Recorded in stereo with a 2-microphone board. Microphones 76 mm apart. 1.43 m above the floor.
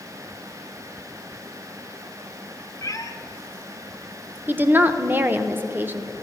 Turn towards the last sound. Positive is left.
turn(degrees=-25)  # may be behind; listen again after turning